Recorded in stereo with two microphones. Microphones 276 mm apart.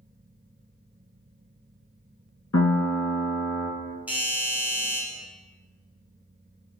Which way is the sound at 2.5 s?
70° left (ahead or behind).